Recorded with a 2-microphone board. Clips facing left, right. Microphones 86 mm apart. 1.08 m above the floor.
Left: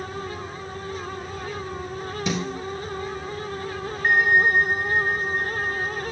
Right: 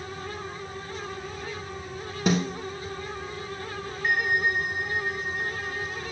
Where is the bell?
45° left (ahead or behind), 0.6 m.